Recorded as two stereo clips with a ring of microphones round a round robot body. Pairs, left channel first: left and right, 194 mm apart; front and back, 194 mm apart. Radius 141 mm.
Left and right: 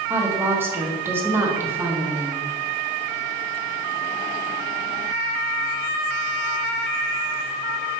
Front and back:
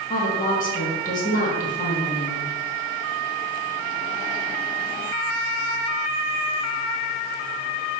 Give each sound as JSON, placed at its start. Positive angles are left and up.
{"t": 0.1, "sound": "a woman speaking", "azimuth_deg": -15, "distance_m": 1.1}